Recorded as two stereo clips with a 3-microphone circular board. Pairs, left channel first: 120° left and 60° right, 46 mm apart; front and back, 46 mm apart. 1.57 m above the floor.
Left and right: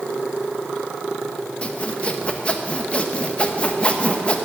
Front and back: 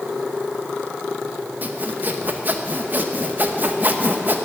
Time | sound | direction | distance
1.6 | sawing | 170° left | 0.9 m